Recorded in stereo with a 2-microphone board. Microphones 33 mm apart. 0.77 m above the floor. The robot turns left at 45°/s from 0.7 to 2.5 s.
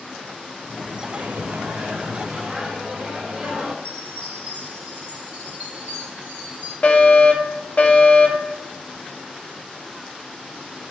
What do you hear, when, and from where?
1.0 s a microwave: 90° right, 2 m; by 3.7 s 155° right, 2 m
3.8 s a chime: 40° right (ahead or behind), 4.5 m
6.8 s a fire alarm: 45° left (ahead or behind), 1.9 m